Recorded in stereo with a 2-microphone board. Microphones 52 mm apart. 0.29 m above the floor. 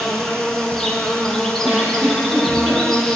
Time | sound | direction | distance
0.0 | an insect | 10° left (ahead or behind) | 2 m
1.6 | a giggle | 35° right (ahead or behind) | 5 m